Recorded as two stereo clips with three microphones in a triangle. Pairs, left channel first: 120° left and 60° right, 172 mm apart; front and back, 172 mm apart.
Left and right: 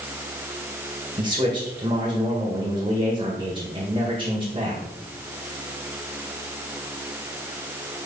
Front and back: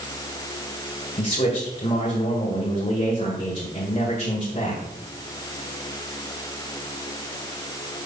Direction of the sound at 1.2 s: 20° right.